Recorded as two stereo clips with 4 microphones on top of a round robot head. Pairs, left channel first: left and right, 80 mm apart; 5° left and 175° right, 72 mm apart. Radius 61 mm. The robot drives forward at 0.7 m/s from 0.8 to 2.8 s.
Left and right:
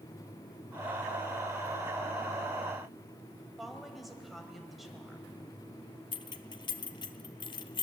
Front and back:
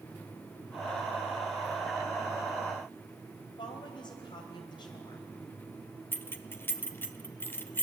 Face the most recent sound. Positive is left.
turn(degrees=70)